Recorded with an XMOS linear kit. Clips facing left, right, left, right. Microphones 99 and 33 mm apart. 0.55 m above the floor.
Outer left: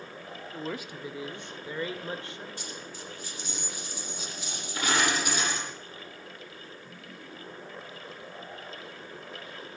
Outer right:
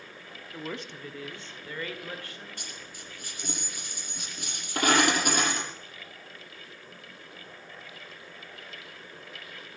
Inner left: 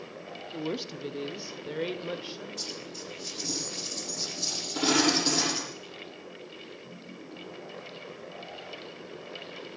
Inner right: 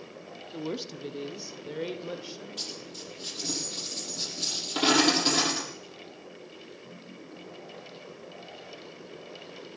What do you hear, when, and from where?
0.5 s a woman speaking: centre (ahead or behind), 0.9 m; by 2.5 s 20° left (ahead or behind), 2.5 m
2.6 s a dropped coin: 55° right (ahead or behind), 7.5 m